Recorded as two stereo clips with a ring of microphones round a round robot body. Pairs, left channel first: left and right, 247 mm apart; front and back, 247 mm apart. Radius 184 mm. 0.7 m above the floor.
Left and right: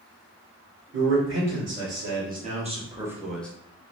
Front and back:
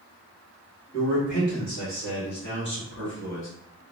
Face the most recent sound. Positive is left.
turn(degrees=5)